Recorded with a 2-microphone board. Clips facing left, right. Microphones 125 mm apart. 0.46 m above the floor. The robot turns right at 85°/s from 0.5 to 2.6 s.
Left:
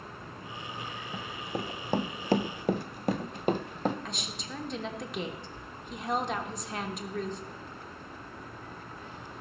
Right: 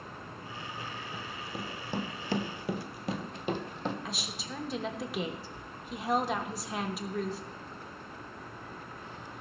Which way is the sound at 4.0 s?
5° right (ahead or behind).